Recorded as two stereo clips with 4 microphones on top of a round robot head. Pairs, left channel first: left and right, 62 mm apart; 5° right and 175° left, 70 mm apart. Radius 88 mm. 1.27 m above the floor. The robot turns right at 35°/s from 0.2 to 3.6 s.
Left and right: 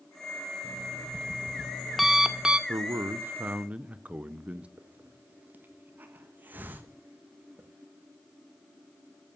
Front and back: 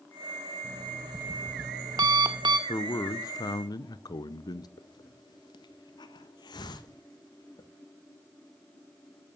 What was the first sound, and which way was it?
An alarm clock, 130° left.